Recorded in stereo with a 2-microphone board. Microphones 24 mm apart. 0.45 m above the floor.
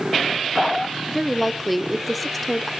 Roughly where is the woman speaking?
Centre.